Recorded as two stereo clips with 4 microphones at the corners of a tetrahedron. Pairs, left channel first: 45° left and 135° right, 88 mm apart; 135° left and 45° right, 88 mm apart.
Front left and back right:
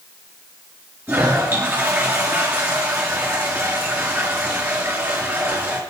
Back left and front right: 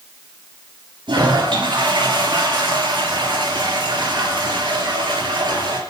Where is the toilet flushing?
75° right, 4.5 m.